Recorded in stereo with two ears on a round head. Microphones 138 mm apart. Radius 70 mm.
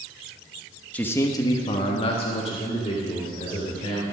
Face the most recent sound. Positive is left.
turn(degrees=35)  # may be behind; listen again after turning